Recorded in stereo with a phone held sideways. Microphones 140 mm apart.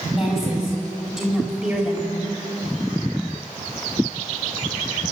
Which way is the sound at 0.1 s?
Centre (ahead or behind).